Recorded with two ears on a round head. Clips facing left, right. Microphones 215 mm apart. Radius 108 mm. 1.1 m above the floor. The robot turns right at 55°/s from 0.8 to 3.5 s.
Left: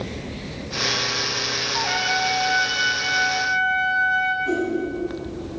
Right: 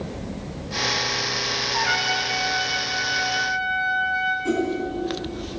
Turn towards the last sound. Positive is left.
turn(degrees=-60)  # may be behind; listen again after turning